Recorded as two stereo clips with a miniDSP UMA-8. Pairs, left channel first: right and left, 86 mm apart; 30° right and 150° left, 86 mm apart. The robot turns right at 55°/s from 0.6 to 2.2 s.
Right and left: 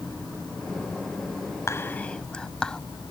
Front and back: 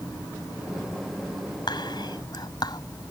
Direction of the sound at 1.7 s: 40° right.